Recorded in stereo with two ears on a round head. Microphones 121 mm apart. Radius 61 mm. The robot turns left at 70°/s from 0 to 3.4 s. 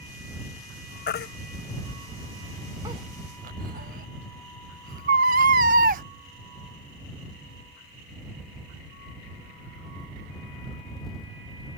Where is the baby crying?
80° left; by 6.0 s 65° right (ahead or behind).